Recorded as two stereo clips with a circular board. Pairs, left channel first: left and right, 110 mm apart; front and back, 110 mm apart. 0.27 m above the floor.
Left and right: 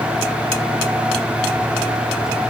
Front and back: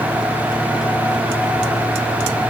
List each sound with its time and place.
Only background noise.